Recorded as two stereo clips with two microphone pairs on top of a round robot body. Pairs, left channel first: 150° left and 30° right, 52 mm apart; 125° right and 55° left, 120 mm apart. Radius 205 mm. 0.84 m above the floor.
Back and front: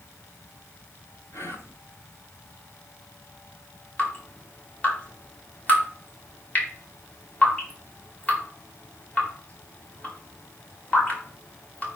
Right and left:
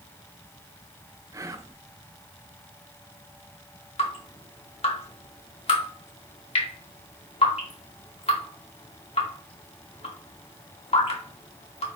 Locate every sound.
1.3 s whispering: 120° left, 2.5 m
4.0 s dripping: 145° right, 4.5 m